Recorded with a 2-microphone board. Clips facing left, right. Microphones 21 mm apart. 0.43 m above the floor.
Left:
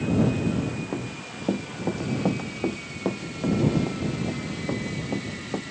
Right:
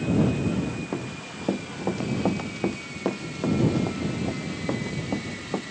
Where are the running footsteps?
15° right (ahead or behind); by 5.6 s 20° right (ahead or behind).